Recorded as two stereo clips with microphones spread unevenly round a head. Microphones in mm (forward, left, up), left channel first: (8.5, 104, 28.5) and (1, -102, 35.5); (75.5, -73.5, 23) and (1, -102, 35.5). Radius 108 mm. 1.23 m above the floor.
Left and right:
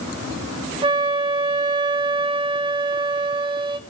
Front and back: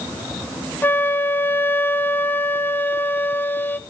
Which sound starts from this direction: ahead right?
A flute, at 0.8 s.